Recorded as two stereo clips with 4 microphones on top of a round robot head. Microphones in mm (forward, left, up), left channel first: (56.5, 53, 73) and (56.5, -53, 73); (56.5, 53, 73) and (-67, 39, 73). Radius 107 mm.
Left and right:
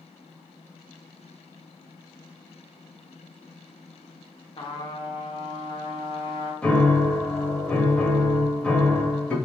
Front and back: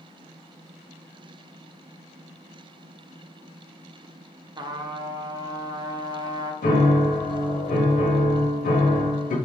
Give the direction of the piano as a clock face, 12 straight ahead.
12 o'clock.